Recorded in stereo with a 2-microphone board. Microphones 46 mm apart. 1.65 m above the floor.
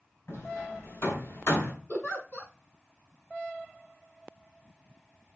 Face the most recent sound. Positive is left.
turn(degrees=35)  # may be behind; listen again after turning